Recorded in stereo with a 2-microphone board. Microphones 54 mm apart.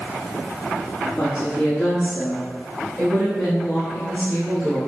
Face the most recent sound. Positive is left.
turn(degrees=-10)  # may be behind; listen again after turning